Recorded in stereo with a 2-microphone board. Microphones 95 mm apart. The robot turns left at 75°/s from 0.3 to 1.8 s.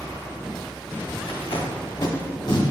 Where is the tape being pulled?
85° left, 1.1 m; by 2.6 s 55° left (ahead or behind), 1.1 m.